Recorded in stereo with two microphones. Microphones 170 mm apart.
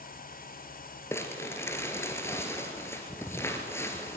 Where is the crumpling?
15° left (ahead or behind), 2 m.